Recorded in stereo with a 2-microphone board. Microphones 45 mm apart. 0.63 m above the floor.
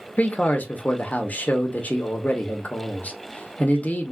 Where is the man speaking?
35° left (ahead or behind), 0.7 m.